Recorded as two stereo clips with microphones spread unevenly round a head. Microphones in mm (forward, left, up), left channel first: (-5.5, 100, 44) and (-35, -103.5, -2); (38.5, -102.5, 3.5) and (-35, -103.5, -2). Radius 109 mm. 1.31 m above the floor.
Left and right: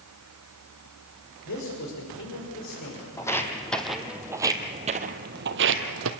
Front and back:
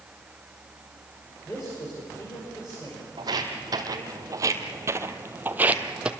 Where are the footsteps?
145° left, 2.5 m; by 6.1 s 105° right, 1.9 m.